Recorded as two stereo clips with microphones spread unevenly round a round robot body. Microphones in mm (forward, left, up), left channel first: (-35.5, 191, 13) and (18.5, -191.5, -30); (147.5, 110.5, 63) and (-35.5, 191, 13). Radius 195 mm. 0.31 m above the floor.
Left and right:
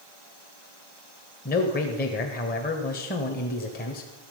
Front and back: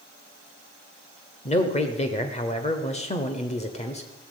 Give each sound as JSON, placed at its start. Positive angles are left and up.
{"t": 1.4, "sound": "a man speaking", "azimuth_deg": 35, "distance_m": 1.2}